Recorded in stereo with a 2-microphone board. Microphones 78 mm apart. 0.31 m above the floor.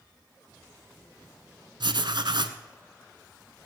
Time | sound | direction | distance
1.8 | writing | 75° right (ahead or behind) | 0.9 m